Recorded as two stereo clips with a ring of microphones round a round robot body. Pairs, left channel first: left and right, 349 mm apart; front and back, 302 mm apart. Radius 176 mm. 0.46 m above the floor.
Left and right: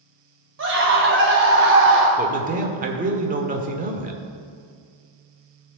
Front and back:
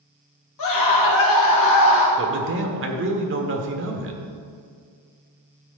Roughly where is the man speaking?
Behind right.